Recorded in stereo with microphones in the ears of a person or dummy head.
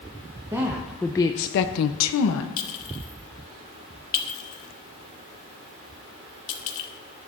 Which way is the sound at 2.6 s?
40° left (ahead or behind).